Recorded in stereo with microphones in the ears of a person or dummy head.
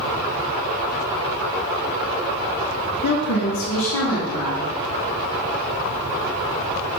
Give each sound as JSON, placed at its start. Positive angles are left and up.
{"t": 3.0, "sound": "a woman speaking", "side_deg": 50, "distance_m": 1.0}